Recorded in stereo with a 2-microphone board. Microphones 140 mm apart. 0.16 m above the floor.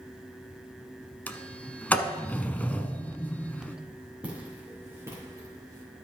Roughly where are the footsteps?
Centre.